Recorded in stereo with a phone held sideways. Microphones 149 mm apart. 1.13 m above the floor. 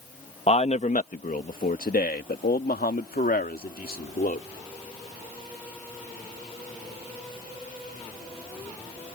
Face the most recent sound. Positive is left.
turn(degrees=75)  # may be behind; listen again after turning